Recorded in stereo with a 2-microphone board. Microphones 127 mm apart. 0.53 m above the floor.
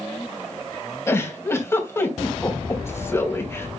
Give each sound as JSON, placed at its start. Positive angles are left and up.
{"t": 1.1, "sound": "a giggle", "side_deg": 20, "distance_m": 3.0}